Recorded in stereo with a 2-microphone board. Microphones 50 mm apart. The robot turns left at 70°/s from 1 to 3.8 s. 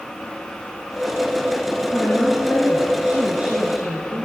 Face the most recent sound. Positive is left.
turn(degrees=-65)